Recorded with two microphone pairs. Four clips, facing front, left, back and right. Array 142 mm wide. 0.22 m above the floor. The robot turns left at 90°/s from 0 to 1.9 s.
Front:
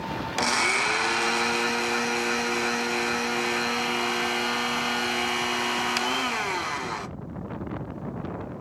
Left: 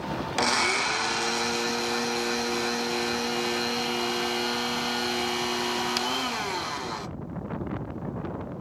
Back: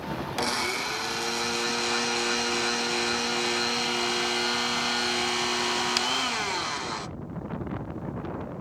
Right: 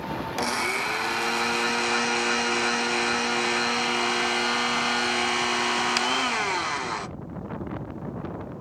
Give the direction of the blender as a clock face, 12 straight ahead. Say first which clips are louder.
Left 3 dB, front 5 dB; 10 o'clock.